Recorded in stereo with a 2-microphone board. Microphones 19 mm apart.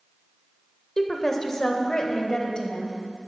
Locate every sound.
1.0 s a woman speaking: 15° left (ahead or behind), 1.1 m; by 3.0 s 35° left (ahead or behind), 1.9 m